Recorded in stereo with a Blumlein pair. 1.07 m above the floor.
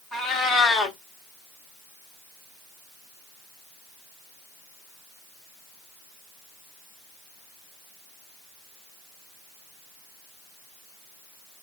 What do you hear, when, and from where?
0.1 s a cat meowing: 15° left, 1.0 m